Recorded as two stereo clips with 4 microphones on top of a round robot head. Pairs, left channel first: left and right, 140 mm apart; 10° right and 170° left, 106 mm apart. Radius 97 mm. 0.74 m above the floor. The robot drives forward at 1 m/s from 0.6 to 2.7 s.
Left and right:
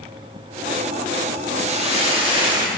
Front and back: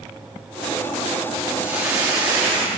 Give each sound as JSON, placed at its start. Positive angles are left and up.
{"t": 1.6, "sound": "a hiss", "azimuth_deg": -115, "distance_m": 1.4}